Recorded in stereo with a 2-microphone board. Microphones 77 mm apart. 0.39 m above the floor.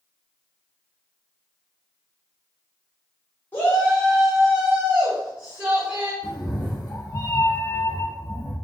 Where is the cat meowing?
45° left (ahead or behind), 0.7 m.